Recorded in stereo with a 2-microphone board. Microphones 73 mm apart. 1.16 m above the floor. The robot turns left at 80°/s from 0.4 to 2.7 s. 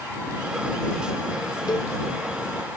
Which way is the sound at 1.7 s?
65° left (ahead or behind).